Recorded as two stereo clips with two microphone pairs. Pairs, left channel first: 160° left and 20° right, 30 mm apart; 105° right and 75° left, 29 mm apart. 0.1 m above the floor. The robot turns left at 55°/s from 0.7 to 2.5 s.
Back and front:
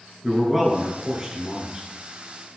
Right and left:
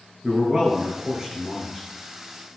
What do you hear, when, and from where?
0.2 s a man speaking: 50° left, 1.1 m; by 1.9 s 10° right, 1.1 m